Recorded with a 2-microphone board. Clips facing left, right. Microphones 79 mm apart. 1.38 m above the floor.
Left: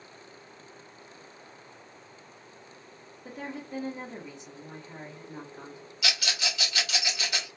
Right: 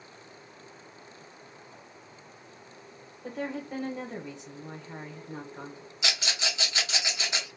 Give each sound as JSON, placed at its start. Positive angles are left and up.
{"t": 3.2, "sound": "a woman speaking", "side_deg": -60, "distance_m": 1.2}
{"t": 6.0, "sound": "a rattle", "side_deg": -25, "distance_m": 1.2}